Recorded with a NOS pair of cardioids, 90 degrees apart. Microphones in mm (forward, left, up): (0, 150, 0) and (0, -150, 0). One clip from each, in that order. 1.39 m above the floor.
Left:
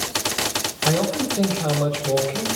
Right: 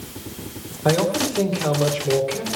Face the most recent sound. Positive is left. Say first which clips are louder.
# right 4 dB
turn(degrees=-10)